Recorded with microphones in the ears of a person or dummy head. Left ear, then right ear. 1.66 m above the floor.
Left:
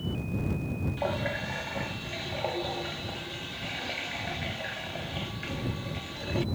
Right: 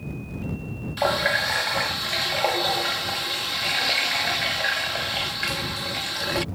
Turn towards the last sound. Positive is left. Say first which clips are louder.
# right 11 dB
turn(degrees=-55)  # may be behind; listen again after turning